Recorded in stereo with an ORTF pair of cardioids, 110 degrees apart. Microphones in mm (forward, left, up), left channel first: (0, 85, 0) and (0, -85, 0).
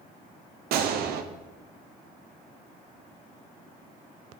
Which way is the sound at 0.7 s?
70° right.